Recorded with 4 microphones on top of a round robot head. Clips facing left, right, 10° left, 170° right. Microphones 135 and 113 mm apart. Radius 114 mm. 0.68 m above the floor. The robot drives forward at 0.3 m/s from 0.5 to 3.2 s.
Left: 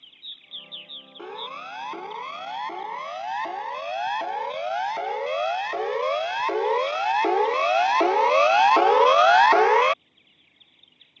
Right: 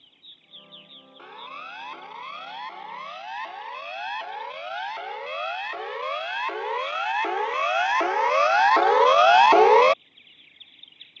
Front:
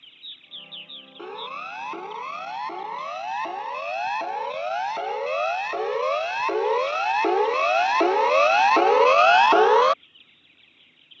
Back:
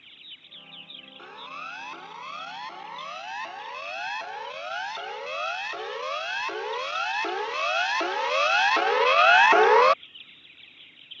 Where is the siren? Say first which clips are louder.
Left 6 dB, front 7 dB; 45° left; by 10.0 s 80° right.